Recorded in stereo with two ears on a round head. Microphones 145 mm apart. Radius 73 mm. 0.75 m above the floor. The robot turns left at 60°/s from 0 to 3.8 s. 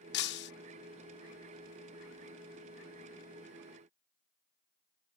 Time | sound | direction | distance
0.1 | breaking glass | 75° left (ahead or behind) | ?